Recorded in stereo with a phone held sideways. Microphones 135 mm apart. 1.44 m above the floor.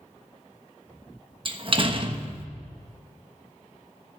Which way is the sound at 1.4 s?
40° right (ahead or behind).